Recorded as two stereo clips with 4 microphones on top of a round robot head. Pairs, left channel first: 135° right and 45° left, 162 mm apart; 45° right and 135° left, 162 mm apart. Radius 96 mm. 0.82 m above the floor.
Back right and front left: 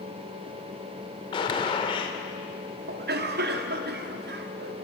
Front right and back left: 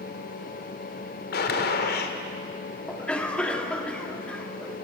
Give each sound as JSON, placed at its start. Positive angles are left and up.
{"t": 1.3, "sound": "a gunshot", "azimuth_deg": -70, "distance_m": 1.8}
{"t": 2.9, "sound": "a cough", "azimuth_deg": 40, "distance_m": 1.8}